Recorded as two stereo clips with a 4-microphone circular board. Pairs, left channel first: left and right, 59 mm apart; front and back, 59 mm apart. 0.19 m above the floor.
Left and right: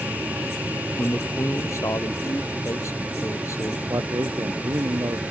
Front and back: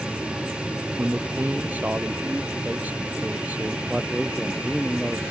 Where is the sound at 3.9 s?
95° right.